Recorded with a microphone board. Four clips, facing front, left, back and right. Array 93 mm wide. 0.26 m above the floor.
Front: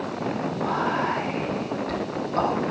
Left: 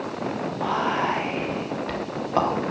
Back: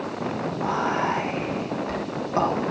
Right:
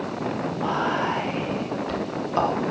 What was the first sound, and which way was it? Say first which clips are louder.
Whispering: left 1 dB, back 1 dB; 110° left.